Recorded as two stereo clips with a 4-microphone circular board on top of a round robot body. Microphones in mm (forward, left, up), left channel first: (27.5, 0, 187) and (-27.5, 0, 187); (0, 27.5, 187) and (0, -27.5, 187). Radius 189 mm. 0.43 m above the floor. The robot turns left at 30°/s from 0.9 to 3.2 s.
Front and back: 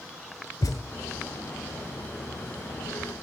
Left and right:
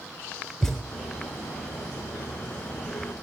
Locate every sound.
0.6 s a thud: 5° left, 1.1 m